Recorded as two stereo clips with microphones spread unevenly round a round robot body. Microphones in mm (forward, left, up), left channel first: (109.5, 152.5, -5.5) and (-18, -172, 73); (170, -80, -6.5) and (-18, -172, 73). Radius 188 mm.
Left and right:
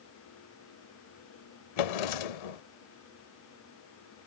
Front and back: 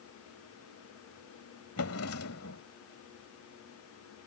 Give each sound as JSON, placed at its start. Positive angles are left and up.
{"t": 1.8, "sound": "a drawer", "azimuth_deg": 85}